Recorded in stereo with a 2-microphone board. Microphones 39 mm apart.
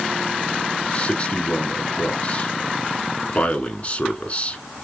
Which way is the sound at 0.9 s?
40° left (ahead or behind).